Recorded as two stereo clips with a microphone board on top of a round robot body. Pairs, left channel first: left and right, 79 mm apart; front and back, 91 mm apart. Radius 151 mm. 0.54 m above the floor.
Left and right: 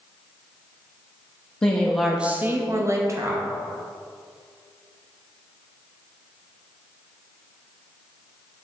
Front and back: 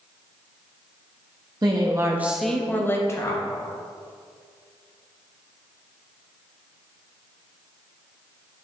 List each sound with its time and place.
1.6 s a woman speaking: 160° left, 1.3 m; by 3.4 s 50° right, 1.8 m